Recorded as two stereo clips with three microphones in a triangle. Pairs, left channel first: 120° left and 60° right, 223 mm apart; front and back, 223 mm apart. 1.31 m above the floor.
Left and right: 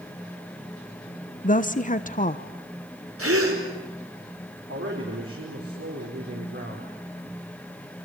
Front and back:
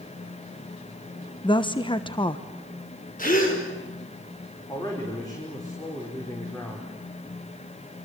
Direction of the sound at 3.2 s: 50° right.